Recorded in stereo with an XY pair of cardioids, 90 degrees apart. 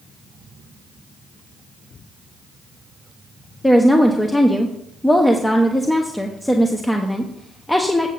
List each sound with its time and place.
3.6 s a woman speaking: 15° left, 1.0 m